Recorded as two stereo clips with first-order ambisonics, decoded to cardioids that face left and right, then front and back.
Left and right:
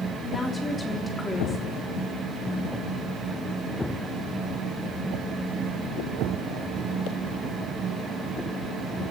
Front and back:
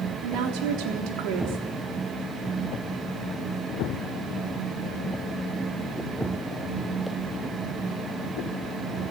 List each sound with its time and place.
0.2 s a woman speaking: 170° left, 3.5 m